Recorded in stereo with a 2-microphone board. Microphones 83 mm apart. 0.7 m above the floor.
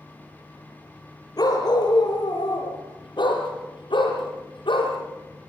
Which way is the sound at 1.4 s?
50° left (ahead or behind).